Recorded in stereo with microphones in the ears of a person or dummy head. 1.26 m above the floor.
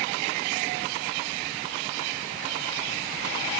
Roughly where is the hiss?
I don't hear a hiss.